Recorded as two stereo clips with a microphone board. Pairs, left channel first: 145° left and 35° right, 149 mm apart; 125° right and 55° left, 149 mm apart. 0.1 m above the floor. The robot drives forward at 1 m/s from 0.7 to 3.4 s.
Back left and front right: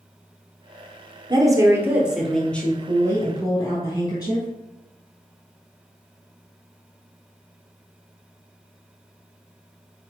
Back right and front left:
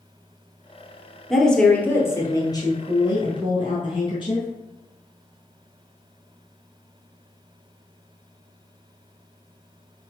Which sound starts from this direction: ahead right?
A woman speaking, at 1.3 s.